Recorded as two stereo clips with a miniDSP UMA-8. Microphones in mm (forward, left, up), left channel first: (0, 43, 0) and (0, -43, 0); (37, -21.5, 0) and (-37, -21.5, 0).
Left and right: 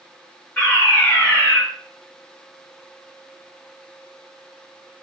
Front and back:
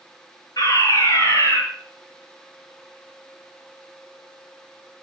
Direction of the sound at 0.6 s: 15° left.